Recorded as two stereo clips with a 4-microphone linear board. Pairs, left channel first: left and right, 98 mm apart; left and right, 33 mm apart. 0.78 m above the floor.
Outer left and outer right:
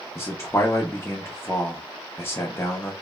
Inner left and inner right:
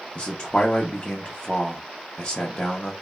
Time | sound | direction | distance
0.1 | a man speaking | 25° left (ahead or behind) | 0.5 m